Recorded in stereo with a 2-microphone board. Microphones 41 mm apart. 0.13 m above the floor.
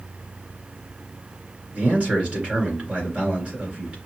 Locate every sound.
1.7 s a man speaking: 30° right (ahead or behind), 2 m